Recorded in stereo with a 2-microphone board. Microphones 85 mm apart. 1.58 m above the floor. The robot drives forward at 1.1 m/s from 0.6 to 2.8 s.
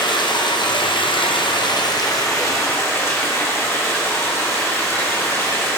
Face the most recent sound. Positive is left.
turn(degrees=30)  # may be behind; listen again after turning